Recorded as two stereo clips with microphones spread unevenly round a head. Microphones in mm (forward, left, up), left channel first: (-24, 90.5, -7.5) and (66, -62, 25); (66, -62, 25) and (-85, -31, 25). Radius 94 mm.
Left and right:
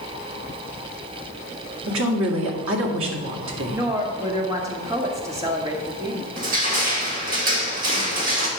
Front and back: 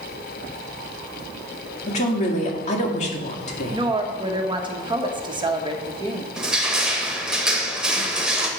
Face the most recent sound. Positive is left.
turn(degrees=-105)